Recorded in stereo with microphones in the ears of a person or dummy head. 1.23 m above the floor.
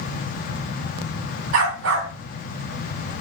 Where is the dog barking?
70° right (ahead or behind), 2.5 m; by 3.2 s 75° right (ahead or behind), 3.5 m.